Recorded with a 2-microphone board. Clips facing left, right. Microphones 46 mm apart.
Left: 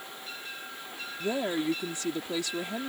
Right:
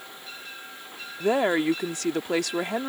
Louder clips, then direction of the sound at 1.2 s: Right 7 dB; 65° right (ahead or behind).